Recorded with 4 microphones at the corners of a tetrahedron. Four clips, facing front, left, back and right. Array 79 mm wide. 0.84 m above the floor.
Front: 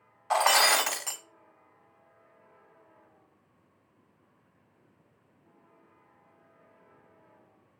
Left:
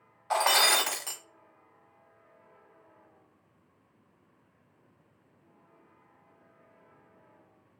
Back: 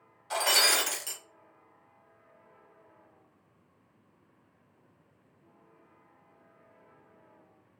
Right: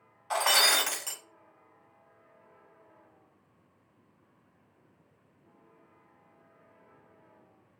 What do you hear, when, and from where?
0.3 s breaking glass: 25° left, 1.1 m